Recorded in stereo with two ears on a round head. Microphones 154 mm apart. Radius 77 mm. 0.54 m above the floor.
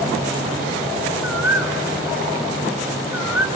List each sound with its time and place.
1.2 s a bird: 10° right (ahead or behind), 2 m